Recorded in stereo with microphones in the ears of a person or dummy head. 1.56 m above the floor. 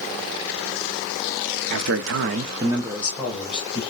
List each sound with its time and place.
1.7 s a man speaking: 60° right (ahead or behind), 0.8 m; by 3.8 s 10° left (ahead or behind), 1.7 m